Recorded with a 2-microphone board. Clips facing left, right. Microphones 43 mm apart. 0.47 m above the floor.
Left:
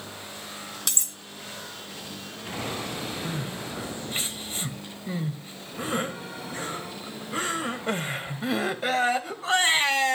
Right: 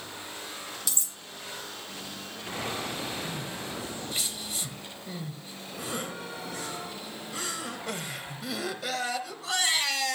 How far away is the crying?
About 1.4 m.